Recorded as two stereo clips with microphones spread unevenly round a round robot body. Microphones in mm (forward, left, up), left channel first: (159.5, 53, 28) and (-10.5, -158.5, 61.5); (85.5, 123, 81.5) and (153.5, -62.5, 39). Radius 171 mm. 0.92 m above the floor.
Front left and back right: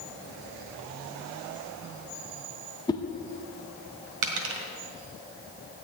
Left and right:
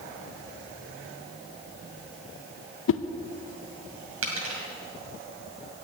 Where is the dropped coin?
115° right, 1.9 m.